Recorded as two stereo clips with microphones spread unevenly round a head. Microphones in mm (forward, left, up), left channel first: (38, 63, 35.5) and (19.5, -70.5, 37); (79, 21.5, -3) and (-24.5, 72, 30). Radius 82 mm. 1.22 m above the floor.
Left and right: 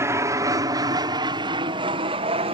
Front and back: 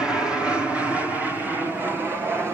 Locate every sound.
0.0 s an aircraft: 85° right; by 2.5 s 120° right